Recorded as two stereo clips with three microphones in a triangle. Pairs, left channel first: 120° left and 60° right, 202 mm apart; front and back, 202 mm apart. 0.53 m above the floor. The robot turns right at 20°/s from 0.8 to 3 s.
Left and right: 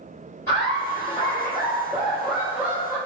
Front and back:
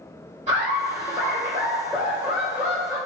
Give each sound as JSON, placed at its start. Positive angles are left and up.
{"t": 0.5, "sound": "laughter", "azimuth_deg": -175, "distance_m": 1.4}